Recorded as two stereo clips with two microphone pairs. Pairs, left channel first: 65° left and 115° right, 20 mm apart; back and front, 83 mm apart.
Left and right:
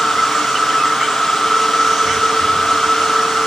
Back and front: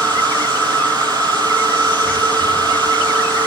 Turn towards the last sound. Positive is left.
turn(degrees=-145)